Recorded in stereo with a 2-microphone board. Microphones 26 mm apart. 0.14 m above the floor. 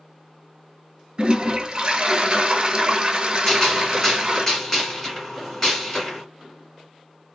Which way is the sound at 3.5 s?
20° left (ahead or behind).